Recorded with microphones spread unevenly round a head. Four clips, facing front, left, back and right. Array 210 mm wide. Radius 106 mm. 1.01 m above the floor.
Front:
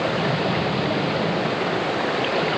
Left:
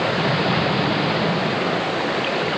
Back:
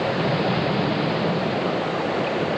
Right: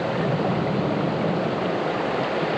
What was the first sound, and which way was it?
Only background noise.